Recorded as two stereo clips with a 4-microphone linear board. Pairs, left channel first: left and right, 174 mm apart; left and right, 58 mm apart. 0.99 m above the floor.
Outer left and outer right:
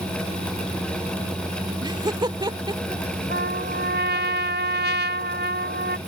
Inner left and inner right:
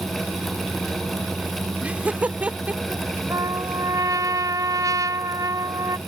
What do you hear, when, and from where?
1.8 s laughter: 25° right (ahead or behind)
3.3 s a trumpet: 85° right